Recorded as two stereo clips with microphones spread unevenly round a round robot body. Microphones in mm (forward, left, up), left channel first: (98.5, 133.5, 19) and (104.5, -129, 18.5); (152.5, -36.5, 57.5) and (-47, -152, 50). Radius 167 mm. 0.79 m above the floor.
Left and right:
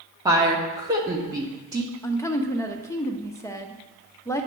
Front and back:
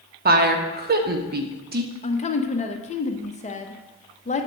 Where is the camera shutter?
No camera shutter in this recording.